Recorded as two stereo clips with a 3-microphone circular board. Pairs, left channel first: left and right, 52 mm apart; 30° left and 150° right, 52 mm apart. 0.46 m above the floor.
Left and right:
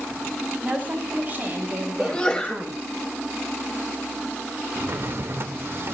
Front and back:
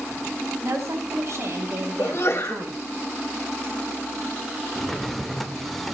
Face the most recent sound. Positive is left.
turn(degrees=-55)